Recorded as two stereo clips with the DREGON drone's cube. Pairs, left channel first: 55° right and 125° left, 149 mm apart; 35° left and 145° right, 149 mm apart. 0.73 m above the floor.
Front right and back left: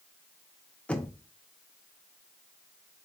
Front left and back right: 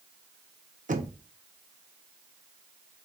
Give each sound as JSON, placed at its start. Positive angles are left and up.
{"t": 0.9, "sound": "knocking", "azimuth_deg": -135, "distance_m": 0.6}